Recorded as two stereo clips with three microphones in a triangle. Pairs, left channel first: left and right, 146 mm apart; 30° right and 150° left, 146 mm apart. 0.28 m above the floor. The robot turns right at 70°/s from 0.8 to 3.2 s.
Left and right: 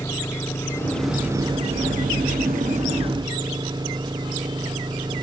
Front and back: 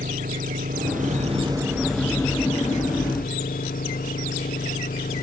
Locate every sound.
0.0 s an engine running: 160° left; by 5.2 s 30° right